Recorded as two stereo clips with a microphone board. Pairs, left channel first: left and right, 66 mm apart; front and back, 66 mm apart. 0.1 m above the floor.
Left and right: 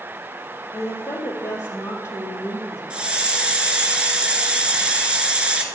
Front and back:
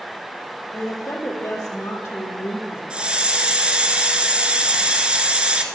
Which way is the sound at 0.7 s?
45° left.